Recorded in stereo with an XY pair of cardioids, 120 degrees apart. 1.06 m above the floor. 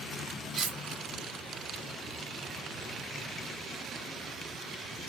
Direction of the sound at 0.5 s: 50° right.